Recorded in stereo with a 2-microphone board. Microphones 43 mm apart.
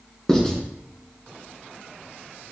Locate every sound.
0.3 s writing: 10° left (ahead or behind), 2 m